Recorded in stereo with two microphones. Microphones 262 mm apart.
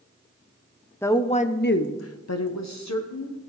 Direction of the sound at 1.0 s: 10° left (ahead or behind).